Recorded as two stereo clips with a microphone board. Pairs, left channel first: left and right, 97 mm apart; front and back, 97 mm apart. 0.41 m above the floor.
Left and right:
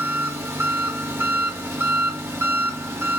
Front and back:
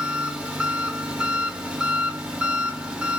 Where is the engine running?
110° right, 0.7 m.